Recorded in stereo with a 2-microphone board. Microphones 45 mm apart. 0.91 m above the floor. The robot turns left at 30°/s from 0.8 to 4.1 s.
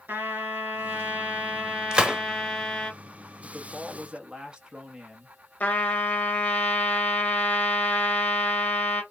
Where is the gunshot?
20° right (ahead or behind), 0.8 m; by 2.2 s 30° right (ahead or behind), 0.8 m.